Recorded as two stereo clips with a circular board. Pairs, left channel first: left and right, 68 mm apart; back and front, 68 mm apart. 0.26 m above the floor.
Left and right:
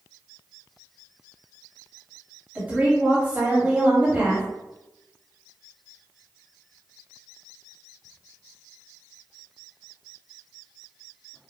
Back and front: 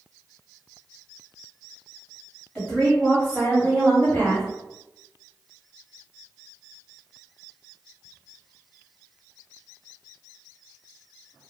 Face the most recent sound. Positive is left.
turn(degrees=-130)